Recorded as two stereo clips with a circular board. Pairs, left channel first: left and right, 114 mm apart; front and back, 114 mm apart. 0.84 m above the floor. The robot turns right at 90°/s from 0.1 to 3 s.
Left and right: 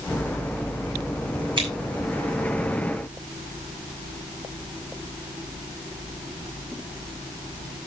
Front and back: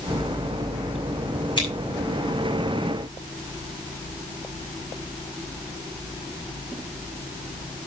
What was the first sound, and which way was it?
Scissors, 45° right.